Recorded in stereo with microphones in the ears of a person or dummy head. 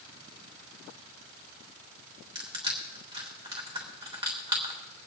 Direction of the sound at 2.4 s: 20° right (ahead or behind).